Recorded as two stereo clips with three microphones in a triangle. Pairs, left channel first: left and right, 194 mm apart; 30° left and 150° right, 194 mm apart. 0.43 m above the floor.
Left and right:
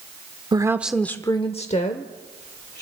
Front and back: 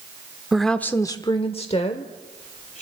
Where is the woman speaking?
65° right, 0.8 m; by 2.8 s 75° left, 1.5 m.